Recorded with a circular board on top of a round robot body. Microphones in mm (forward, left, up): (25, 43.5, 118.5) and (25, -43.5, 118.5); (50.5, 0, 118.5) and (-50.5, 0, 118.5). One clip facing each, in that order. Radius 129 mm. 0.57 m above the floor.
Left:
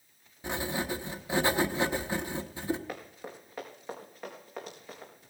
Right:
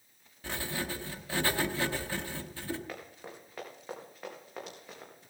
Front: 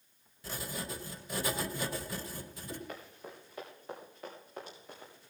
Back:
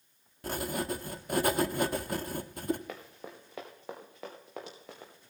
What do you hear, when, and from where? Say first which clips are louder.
0.4 s writing: left 4 dB, back 8 dB; 160° left, 1.0 m
2.9 s running footsteps: left 3 dB, back 2 dB; 170° left, 3.5 m; by 5.1 s straight behind, 5 m